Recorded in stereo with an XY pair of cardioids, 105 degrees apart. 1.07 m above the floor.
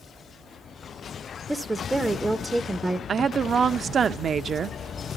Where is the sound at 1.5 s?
10° right, 0.7 m.